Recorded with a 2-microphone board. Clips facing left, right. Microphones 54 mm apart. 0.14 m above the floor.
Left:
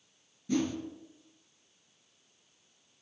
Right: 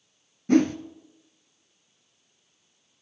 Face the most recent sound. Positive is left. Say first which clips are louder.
# right 11 dB
turn(degrees=-55)  # may be behind; listen again after turning